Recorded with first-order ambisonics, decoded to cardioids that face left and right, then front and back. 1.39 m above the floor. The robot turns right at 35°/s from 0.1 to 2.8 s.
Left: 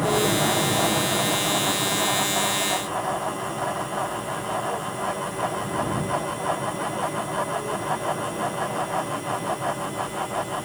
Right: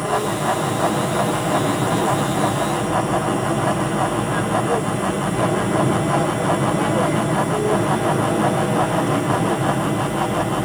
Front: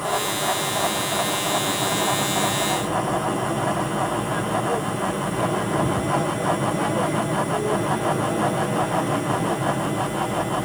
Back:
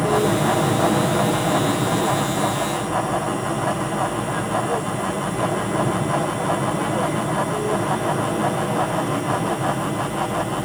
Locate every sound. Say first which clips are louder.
0.0 s an aircraft: right 1 dB, back 4 dB; 170° left; by 10.7 s 95° right